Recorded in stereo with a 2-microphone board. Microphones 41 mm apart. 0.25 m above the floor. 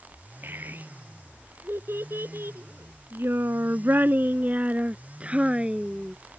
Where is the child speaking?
55° right (ahead or behind); by 6.2 s 15° right (ahead or behind).